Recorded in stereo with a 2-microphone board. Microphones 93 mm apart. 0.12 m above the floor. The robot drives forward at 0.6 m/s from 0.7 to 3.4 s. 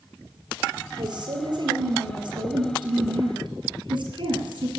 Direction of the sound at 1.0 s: 55° right (ahead or behind).